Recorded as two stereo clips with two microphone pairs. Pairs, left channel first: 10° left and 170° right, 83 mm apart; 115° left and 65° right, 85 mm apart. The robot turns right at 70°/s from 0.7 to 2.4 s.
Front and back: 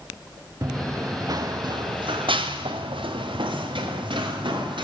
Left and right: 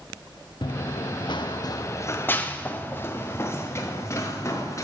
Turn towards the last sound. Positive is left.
turn(degrees=170)